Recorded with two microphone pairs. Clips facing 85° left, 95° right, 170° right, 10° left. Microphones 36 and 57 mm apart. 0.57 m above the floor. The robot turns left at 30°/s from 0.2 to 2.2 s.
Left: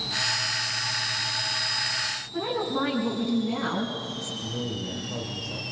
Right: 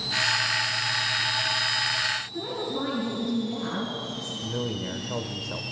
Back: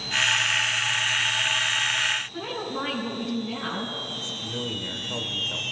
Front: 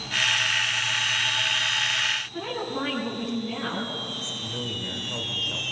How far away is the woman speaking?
About 5 m.